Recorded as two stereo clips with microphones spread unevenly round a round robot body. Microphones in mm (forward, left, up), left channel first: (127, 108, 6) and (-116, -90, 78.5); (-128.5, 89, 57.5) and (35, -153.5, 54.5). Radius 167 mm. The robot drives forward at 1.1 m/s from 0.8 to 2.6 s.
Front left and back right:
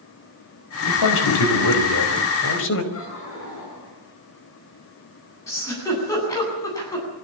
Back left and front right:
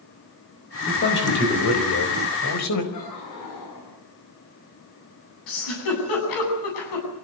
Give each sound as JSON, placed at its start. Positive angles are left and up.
{"t": 0.9, "sound": "a man speaking", "azimuth_deg": 65, "distance_m": 5.0}
{"t": 2.9, "sound": "laughter", "azimuth_deg": 85, "distance_m": 8.5}
{"t": 5.5, "sound": "a giggle", "azimuth_deg": 120, "distance_m": 8.5}